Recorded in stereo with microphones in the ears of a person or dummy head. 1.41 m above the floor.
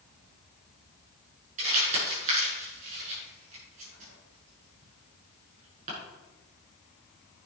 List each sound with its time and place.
1.6 s crumpling: 45° right (ahead or behind), 6.5 m